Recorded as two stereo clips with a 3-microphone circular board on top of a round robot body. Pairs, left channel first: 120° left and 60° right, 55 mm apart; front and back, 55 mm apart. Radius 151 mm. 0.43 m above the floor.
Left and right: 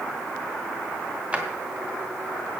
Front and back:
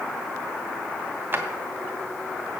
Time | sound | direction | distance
1.3 | a drawer | 130° right | 2.5 m